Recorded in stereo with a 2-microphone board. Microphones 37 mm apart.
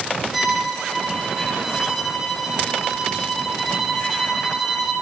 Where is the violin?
5° right (ahead or behind), 6.5 m.